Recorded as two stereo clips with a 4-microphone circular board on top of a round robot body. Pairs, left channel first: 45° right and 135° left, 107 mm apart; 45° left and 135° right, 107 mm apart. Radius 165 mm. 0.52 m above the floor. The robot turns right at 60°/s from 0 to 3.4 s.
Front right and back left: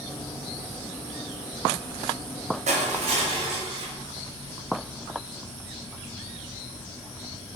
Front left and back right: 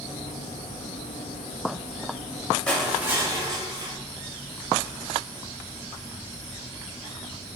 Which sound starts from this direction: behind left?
Crushing, at 2.7 s.